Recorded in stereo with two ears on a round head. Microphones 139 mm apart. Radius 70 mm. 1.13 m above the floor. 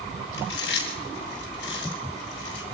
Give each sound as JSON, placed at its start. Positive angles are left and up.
{"t": 0.3, "sound": "chewing", "side_deg": 85, "distance_m": 4.5}